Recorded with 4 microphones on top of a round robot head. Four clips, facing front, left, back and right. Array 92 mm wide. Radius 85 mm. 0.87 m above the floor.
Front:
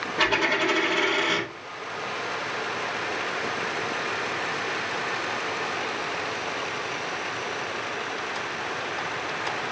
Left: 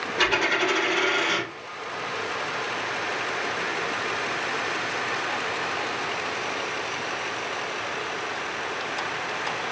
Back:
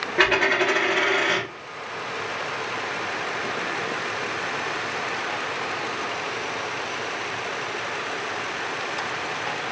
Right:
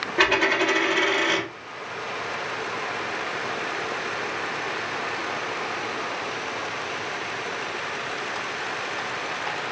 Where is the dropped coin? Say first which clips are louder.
Right 3 dB, back 4 dB; 150° right, 1.6 m.